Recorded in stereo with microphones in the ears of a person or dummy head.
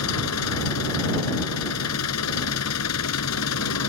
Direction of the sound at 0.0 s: 85° left.